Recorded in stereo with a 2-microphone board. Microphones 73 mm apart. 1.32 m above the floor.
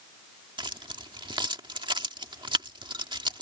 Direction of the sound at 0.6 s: 80° right.